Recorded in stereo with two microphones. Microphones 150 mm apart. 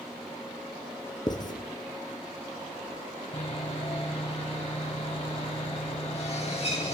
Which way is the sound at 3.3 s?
45° left (ahead or behind).